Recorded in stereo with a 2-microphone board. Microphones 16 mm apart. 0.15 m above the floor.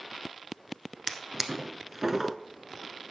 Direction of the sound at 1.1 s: 25° right (ahead or behind).